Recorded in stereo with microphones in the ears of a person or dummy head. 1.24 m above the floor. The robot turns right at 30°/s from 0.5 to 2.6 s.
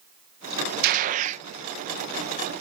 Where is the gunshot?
55° right (ahead or behind); by 1.4 s 35° right (ahead or behind).